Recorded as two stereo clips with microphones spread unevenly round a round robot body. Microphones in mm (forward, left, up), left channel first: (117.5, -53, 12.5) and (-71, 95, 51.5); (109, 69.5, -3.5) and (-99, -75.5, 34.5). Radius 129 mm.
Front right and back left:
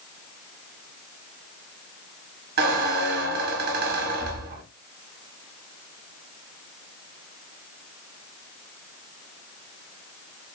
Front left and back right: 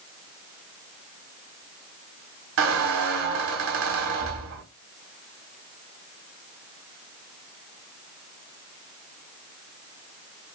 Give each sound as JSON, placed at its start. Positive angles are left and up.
{"t": 2.6, "sound": "a squeak", "azimuth_deg": -170, "distance_m": 1.0}